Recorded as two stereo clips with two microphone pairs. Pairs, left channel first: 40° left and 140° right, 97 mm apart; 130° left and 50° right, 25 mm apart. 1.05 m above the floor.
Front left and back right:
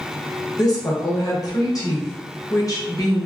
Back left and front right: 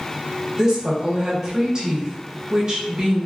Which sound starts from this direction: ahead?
A woman speaking, at 0.6 s.